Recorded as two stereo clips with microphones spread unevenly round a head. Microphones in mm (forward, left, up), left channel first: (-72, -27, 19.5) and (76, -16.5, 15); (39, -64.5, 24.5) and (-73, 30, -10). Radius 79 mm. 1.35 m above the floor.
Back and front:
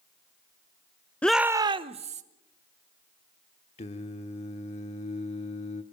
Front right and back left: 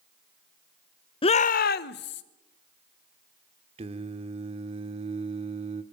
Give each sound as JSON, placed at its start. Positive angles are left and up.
{"t": 1.2, "sound": "a shout", "azimuth_deg": -95, "distance_m": 0.7}
{"t": 3.8, "sound": "singing", "azimuth_deg": -175, "distance_m": 1.1}